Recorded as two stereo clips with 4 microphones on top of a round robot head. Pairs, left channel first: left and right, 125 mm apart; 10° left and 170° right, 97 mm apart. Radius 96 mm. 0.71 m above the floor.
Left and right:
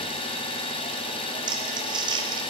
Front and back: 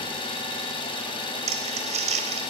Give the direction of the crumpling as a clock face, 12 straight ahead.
5 o'clock.